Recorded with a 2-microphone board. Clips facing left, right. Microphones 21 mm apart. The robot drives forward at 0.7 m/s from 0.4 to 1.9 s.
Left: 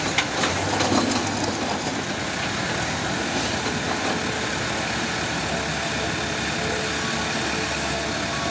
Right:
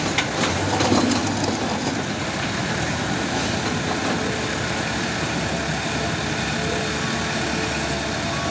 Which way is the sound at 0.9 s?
15° right (ahead or behind).